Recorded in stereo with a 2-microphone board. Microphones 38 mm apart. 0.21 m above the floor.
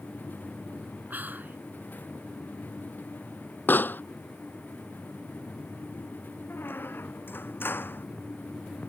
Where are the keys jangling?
I don't hear keys jangling.